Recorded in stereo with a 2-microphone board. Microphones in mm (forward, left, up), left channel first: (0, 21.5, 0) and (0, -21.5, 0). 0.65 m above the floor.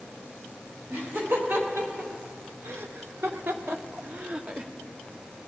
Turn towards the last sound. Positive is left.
turn(degrees=-20)  # may be behind; listen again after turning